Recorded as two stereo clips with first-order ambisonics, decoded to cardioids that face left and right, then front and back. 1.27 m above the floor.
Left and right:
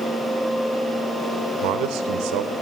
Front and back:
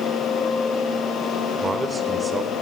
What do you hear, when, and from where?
1.6 s a man speaking: 105° right, 1.1 m